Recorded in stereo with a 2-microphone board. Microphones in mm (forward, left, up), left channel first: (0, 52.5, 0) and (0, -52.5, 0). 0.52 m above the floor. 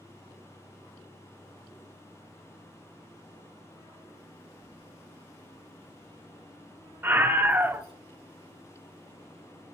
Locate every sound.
4.6 s keys jangling: 65° right (ahead or behind), 4 m; by 7.9 s 80° right, 4.5 m
7.0 s a scream: 20° right (ahead or behind), 0.8 m